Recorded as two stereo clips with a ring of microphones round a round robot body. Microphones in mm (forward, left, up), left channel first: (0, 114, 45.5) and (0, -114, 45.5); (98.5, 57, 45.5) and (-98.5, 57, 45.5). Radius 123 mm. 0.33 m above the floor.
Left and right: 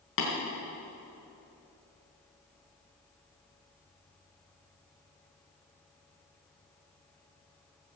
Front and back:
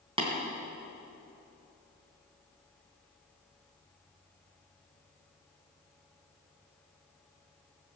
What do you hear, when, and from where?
0.2 s tapping: 120° left, 3.5 m